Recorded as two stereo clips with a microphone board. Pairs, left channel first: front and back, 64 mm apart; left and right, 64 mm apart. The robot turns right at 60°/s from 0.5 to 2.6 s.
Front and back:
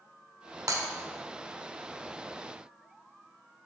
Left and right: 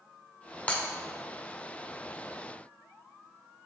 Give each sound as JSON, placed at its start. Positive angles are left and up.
{"t": 0.7, "sound": "breaking glass", "azimuth_deg": 160, "distance_m": 1.2}